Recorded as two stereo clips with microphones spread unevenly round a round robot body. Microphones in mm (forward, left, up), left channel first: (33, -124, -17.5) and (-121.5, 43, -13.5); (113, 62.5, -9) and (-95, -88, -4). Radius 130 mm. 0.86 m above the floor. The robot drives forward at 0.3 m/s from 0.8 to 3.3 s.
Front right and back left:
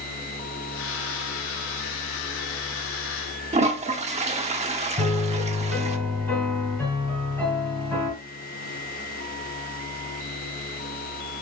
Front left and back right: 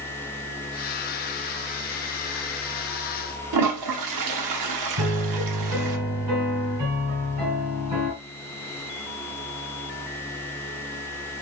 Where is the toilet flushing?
165° right, 1.0 m.